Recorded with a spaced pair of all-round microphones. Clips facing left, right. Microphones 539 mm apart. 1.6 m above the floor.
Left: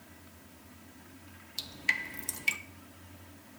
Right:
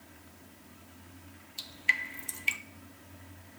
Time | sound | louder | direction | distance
1.6 | dripping | left 3 dB | 65° left (ahead or behind) | 0.7 m